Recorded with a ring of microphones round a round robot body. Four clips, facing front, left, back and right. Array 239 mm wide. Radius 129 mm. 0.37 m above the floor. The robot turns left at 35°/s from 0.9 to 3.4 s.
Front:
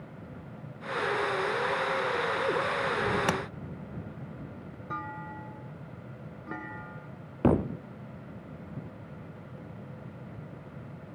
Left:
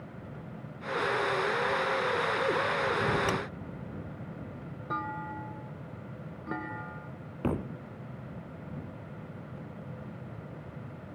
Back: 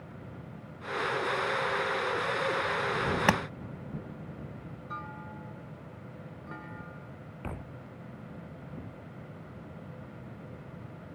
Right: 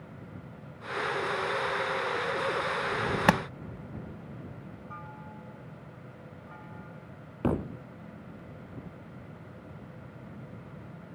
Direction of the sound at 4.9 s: 70° left.